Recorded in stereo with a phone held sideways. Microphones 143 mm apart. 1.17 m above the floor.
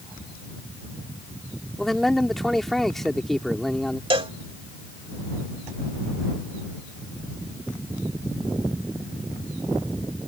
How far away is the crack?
No crack in this recording.